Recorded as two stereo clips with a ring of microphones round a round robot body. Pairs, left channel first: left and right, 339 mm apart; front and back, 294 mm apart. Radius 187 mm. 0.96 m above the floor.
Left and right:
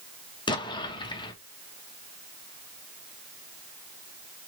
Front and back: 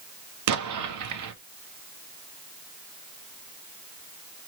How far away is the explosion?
About 1.0 m.